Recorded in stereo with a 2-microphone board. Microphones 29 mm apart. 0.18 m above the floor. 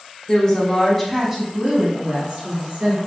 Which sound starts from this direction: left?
A woman speaking, at 0.3 s.